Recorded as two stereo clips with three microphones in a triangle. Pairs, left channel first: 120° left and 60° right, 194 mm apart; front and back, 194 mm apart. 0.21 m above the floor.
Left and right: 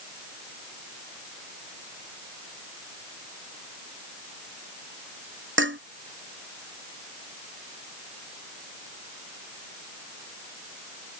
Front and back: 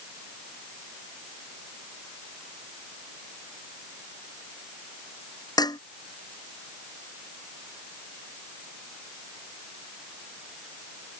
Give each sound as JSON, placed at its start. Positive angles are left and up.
{"t": 5.6, "sound": "dishes clattering", "azimuth_deg": -70}